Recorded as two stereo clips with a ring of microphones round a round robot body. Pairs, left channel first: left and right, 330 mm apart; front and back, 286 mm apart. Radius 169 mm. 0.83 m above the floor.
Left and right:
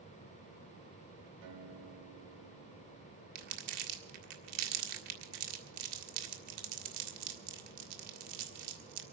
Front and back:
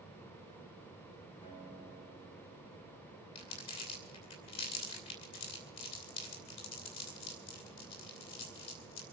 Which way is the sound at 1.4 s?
75° right.